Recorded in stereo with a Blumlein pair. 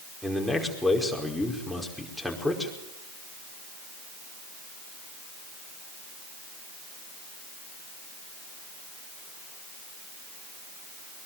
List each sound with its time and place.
0.2 s a man speaking: straight ahead, 5 m